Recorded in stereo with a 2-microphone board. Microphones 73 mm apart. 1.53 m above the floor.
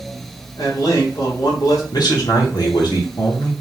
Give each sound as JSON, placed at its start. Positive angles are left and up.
{"t": 0.6, "sound": "a man speaking", "side_deg": 55, "distance_m": 2.0}
{"t": 1.9, "sound": "a man speaking", "side_deg": 70, "distance_m": 1.9}